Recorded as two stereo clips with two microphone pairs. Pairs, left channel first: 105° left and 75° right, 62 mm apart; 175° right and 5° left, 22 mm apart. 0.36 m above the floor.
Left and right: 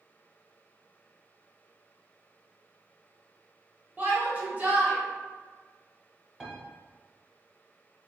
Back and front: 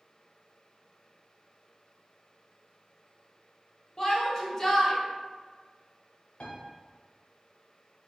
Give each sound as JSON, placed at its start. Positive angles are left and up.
{"t": 4.0, "sound": "a shout", "azimuth_deg": -120, "distance_m": 1.3}
{"t": 6.4, "sound": "a piano", "azimuth_deg": -160, "distance_m": 1.0}